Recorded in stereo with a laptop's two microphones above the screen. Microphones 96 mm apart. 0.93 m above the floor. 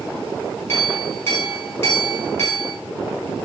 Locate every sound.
0.7 s a clink: 25° left (ahead or behind), 2.0 m